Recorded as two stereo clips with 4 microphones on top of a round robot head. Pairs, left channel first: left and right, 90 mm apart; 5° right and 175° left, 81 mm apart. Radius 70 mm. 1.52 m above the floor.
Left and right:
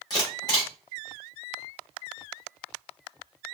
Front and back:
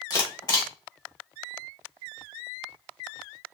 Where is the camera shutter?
35° left, 2.5 m.